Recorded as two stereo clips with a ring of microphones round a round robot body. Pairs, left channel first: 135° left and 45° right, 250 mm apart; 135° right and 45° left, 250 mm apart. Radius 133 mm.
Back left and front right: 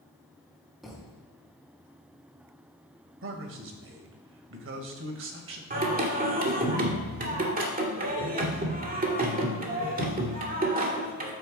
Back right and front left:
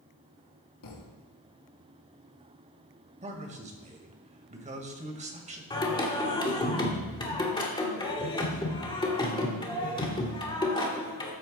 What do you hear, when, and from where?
0.8 s a thud: 135° right, 3 m
3.2 s a man speaking: 15° right, 1.7 m
5.7 s singing: 75° right, 1.8 m